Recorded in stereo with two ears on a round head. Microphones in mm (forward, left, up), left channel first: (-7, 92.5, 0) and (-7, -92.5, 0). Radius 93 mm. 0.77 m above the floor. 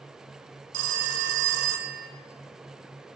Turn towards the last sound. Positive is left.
turn(degrees=-60)  # may be behind; listen again after turning